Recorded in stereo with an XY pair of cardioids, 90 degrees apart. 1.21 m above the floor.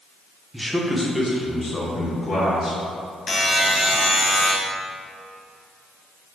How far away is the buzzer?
About 0.7 m.